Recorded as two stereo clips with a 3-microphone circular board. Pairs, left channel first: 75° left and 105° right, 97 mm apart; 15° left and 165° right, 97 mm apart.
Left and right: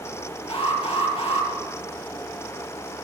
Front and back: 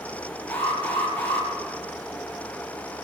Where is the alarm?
85° left, 8.5 m.